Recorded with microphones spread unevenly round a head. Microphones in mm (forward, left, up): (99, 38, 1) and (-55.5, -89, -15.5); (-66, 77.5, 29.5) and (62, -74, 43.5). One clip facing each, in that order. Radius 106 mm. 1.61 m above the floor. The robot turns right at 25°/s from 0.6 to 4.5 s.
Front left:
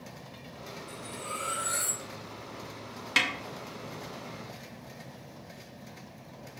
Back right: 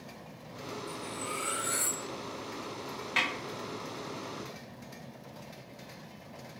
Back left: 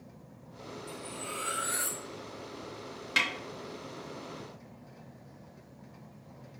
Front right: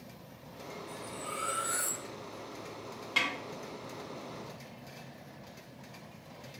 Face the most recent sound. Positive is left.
turn(degrees=95)